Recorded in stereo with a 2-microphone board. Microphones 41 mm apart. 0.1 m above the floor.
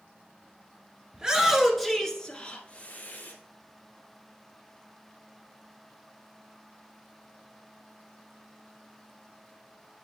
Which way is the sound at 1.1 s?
25° right (ahead or behind).